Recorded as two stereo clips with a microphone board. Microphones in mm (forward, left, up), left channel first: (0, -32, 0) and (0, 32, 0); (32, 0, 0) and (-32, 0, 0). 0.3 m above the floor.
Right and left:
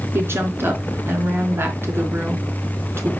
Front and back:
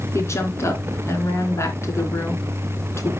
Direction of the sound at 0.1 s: 40° left.